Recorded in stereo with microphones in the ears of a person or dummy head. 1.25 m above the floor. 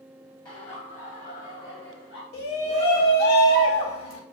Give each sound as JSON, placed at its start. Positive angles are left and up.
{"t": 0.5, "sound": "laughter", "side_deg": 15, "distance_m": 1.0}
{"t": 2.3, "sound": "a shout", "side_deg": 85, "distance_m": 2.5}